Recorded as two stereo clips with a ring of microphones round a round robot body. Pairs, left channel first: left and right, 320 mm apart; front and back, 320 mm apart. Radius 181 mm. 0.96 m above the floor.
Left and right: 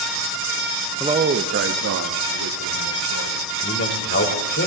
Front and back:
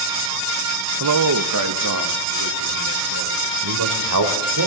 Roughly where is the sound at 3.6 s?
Behind left.